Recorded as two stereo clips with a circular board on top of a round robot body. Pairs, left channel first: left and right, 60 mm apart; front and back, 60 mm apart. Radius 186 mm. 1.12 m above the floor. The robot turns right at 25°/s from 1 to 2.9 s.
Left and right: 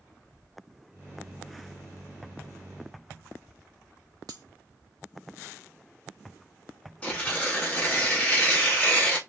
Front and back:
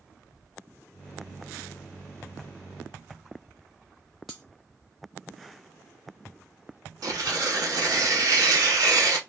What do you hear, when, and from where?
4.3 s cutlery clinking: 90° right, 0.8 m
7.0 s tearing paper: 160° left, 1.3 m